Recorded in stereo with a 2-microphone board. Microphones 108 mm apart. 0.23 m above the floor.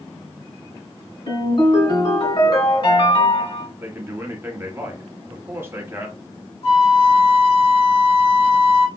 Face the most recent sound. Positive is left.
turn(degrees=65)  # may be behind; listen again after turning